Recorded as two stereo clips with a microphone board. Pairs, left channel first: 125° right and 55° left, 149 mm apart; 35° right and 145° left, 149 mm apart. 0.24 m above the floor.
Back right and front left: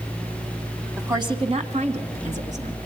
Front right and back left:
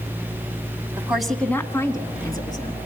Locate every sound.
1.0 s a woman speaking: 90° left, 1.0 m; by 2.8 s 25° left, 2.5 m